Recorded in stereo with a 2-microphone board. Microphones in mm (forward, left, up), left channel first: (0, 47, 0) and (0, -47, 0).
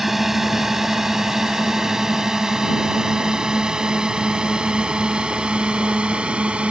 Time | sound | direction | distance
0.0 | a drone | centre (ahead or behind) | ?